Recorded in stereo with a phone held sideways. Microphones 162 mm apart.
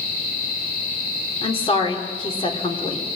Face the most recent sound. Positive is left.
turn(degrees=35)  # may be behind; listen again after turning